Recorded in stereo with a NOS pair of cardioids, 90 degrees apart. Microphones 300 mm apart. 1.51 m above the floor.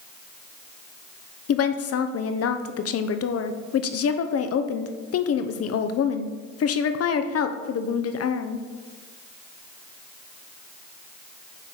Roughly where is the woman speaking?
Ahead left.